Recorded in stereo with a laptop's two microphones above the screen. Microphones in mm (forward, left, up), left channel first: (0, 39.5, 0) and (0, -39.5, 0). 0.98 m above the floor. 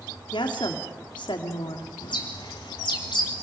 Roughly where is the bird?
Left.